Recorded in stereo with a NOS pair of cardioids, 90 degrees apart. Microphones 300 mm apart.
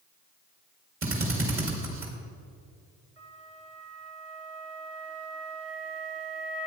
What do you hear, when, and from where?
1.0 s a drill: 45° right, 2.5 m
3.2 s a flute: 55° right, 2.5 m